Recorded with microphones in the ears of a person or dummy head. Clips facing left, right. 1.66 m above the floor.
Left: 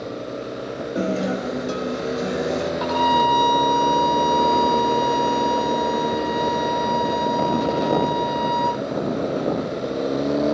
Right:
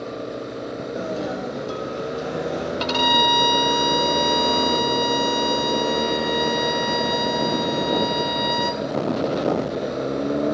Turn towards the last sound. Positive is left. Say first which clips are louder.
# left 1 dB
turn(degrees=-40)  # may be behind; listen again after turning